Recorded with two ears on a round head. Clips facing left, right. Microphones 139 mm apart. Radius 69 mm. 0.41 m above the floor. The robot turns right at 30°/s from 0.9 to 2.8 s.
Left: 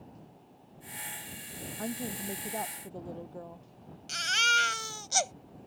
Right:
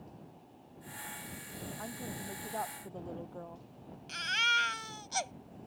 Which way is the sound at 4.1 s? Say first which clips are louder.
Left 4 dB; 55° left (ahead or behind).